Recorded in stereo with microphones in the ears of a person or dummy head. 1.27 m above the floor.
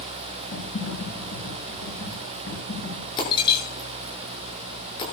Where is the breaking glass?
25° left (ahead or behind), 7 m.